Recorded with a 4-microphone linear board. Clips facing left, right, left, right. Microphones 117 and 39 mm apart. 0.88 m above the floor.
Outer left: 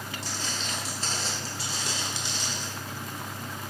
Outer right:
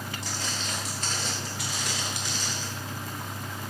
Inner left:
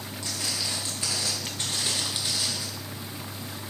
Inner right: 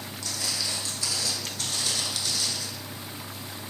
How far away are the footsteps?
About 1.4 m.